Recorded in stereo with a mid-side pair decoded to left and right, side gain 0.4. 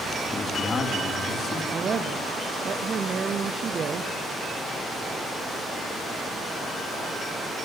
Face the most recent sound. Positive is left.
turn(degrees=-50)